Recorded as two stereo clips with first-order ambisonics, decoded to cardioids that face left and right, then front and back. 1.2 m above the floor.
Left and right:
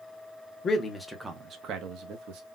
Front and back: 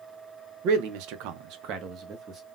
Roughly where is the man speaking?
Behind left.